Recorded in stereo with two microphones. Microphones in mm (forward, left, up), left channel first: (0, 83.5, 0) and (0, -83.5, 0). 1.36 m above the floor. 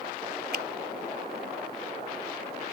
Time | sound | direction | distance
0.5 | a finger snap | 75° right (ahead or behind) | ?